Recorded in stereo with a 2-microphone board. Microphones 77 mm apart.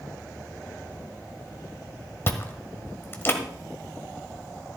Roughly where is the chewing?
Left.